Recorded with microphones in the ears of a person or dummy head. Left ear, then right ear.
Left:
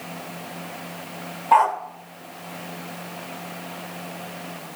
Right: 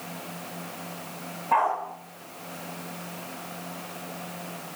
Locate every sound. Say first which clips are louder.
1.5 s a dog barking: left 6 dB; 35° left (ahead or behind), 1.9 m